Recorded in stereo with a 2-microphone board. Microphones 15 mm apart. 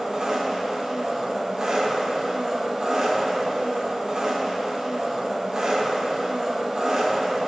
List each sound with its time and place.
0.0 s an engine running: 35° right (ahead or behind), 0.8 m